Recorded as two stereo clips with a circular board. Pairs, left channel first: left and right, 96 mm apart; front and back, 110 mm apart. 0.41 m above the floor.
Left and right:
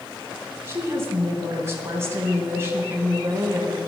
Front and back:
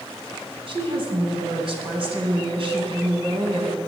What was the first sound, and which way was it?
A woman speaking, 150° right.